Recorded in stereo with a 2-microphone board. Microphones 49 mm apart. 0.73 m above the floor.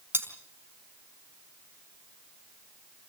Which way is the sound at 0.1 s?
50° right (ahead or behind).